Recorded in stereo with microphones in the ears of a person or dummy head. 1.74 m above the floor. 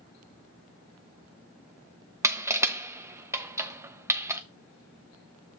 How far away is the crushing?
About 0.6 m.